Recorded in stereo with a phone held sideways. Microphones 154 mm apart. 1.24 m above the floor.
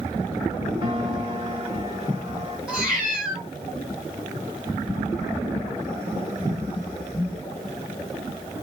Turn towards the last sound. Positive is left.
turn(degrees=-10)  # may be behind; listen again after turning